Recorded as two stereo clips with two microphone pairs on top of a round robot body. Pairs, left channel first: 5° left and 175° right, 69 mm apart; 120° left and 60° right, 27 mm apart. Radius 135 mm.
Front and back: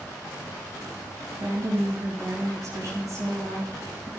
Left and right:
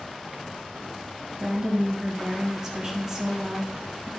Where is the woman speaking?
130° right, 3 m.